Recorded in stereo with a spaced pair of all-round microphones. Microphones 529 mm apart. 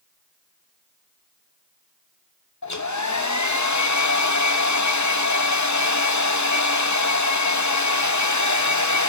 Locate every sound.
2.6 s a hair dryer: 35° left (ahead or behind), 0.8 m